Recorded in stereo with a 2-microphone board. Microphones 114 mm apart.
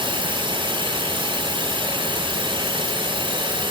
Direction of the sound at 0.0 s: 40° right (ahead or behind).